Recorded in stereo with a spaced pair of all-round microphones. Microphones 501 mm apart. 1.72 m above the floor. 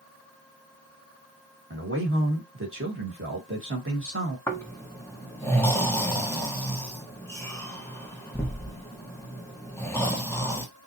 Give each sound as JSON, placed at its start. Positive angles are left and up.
{"t": 1.7, "sound": "a man speaking", "side_deg": -25, "distance_m": 2.0}
{"t": 4.5, "sound": "snoring", "side_deg": 5, "distance_m": 1.3}